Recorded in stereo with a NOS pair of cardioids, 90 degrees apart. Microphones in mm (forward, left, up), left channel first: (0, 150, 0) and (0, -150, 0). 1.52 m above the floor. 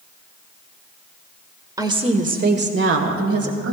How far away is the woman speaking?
About 1.2 m.